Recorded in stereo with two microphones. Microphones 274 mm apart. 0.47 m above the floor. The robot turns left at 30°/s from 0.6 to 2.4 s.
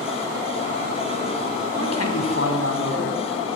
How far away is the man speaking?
About 4.5 m.